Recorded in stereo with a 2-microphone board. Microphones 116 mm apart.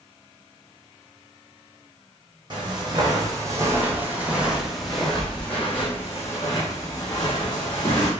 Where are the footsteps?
40° right (ahead or behind), 1.8 m; by 8.1 s 40° left (ahead or behind), 2.5 m.